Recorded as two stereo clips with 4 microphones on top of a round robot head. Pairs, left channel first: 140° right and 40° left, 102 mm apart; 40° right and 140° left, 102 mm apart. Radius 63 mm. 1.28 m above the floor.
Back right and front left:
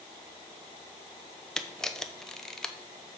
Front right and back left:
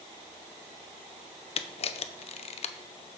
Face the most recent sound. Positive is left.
turn(degrees=-55)